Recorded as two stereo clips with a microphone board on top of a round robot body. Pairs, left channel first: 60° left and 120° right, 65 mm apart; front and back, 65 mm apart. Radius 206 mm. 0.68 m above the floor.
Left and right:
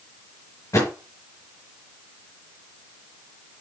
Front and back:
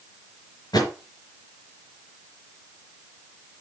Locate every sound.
0.7 s a thud: 15° left, 4.5 m